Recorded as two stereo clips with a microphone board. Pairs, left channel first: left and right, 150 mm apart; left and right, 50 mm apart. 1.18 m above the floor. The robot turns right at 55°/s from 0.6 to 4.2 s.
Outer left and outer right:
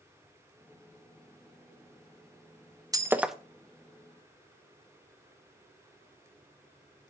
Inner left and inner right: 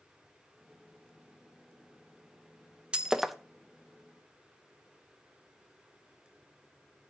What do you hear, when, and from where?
2.9 s breaking glass: 20° right (ahead or behind), 0.7 m; by 3.4 s centre (ahead or behind), 0.7 m